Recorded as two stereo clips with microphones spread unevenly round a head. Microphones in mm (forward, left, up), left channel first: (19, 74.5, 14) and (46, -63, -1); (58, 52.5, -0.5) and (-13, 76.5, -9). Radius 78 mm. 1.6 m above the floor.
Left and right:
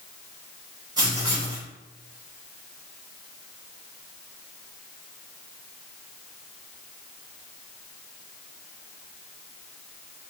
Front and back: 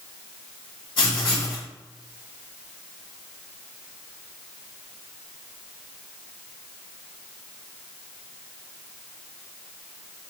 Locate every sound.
1.0 s writing: 20° right, 2.5 m